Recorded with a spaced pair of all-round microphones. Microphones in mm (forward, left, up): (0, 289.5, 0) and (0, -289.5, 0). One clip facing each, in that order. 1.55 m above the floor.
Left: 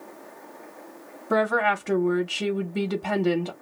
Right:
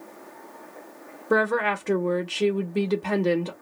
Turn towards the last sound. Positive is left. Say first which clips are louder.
# right 1 dB
turn(degrees=10)  # may be behind; listen again after turning